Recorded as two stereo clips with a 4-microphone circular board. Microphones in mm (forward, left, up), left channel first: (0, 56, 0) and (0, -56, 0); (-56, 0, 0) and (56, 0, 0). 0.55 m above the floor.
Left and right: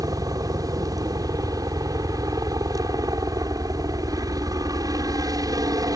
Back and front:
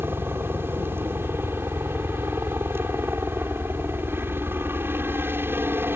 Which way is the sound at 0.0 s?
60° right.